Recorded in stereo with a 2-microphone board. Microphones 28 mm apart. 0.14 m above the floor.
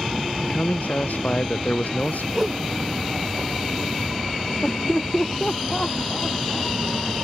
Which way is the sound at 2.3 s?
15° right (ahead or behind).